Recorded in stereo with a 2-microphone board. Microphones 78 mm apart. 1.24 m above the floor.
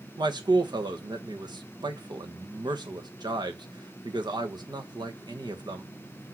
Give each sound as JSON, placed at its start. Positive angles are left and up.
{"t": 0.2, "sound": "a man speaking", "side_deg": -65, "distance_m": 1.3}